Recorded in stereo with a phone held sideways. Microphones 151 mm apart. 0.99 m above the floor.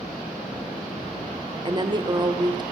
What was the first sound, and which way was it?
A woman speaking, 30° right (ahead or behind).